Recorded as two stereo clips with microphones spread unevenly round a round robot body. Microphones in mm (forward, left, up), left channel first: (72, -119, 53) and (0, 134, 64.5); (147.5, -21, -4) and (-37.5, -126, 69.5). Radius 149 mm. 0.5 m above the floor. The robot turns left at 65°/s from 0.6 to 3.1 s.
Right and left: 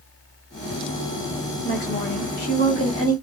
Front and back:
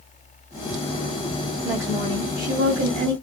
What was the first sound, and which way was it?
A woman speaking, 45° right.